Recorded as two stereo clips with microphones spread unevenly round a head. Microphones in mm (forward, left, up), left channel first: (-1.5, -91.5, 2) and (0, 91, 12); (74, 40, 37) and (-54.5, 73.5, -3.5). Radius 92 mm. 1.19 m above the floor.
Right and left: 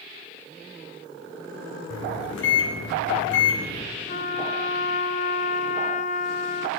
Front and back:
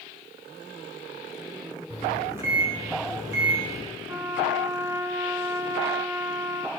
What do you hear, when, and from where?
1.9 s a microwave: 115° right, 8.5 m
4.1 s a trumpet: 135° right, 0.9 m